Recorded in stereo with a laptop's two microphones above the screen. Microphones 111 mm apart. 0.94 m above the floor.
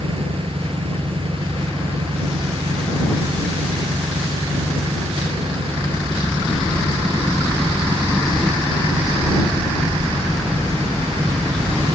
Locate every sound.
0.0 s an engine running: 55° right (ahead or behind)